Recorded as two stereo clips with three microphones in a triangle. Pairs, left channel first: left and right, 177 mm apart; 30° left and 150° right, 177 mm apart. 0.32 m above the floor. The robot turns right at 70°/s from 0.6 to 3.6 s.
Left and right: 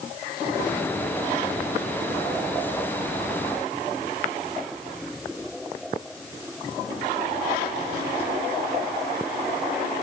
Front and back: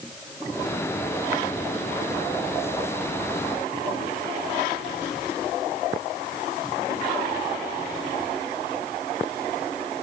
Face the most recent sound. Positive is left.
No sound to turn to.